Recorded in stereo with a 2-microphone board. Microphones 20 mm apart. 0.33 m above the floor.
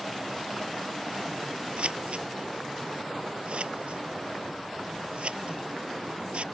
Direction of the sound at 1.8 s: 65° right (ahead or behind).